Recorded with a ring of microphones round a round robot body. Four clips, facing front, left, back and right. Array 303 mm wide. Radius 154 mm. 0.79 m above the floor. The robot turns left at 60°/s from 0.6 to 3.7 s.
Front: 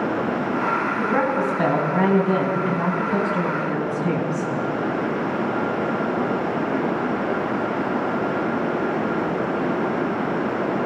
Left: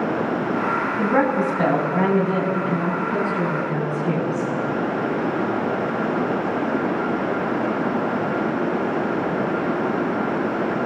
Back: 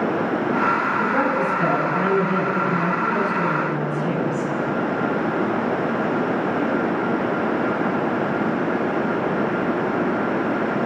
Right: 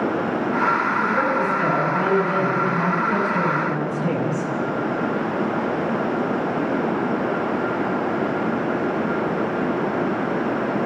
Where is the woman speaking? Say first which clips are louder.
Left 1 dB, back 1 dB; 85° left, 6.5 m; by 4.5 s 80° right, 6.5 m.